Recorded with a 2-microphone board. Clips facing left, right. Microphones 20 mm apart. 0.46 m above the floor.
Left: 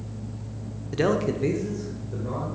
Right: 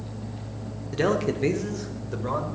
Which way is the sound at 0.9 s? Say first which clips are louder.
Even; 10° left (ahead or behind).